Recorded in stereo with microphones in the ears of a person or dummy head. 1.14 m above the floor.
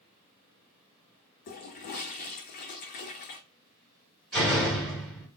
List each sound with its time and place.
1.5 s a toilet flushing: 45° left (ahead or behind), 0.7 m
4.3 s a door slam: 5° left (ahead or behind), 1.9 m